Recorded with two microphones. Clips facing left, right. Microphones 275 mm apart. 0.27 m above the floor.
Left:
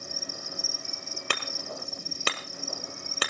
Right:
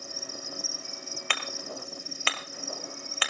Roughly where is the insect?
Left.